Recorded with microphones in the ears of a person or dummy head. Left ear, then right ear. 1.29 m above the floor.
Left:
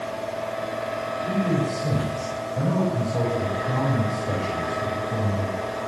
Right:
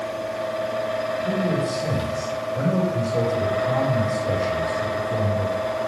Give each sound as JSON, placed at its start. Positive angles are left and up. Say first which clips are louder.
{"t": 0.0, "sound": "a fan", "louder": "right 2 dB", "side_deg": -45, "distance_m": 5.0}
{"t": 1.2, "sound": "a man speaking", "louder": "right 2 dB", "side_deg": -80, "distance_m": 5.5}